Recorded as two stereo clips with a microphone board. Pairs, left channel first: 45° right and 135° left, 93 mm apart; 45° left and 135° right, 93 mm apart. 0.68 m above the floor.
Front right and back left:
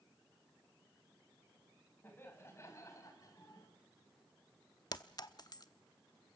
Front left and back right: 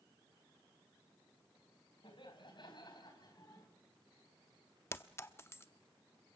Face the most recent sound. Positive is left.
turn(degrees=-15)